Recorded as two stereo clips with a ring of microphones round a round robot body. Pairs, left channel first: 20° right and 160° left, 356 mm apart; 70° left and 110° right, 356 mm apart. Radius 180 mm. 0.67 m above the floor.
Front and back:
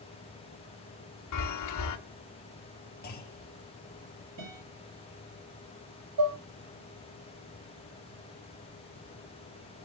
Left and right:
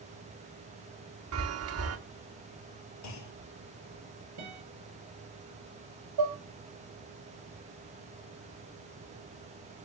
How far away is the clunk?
About 1.9 m.